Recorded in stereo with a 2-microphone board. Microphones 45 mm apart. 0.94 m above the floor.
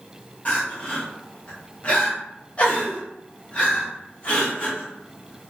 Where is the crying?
30° left (ahead or behind), 1.0 m.